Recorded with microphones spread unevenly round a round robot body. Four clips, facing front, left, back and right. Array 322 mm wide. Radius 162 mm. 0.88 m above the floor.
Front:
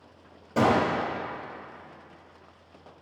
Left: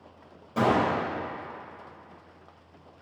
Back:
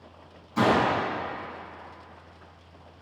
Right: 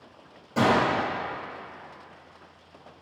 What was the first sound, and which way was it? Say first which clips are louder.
A gunshot: right 1 dB, even; 5° left.